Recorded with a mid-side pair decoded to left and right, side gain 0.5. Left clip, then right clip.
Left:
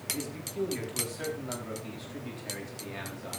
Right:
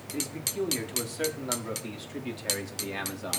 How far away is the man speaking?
About 5 m.